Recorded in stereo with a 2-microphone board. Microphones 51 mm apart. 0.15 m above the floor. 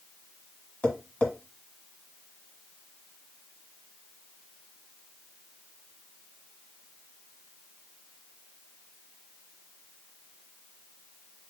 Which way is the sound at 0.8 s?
20° left (ahead or behind).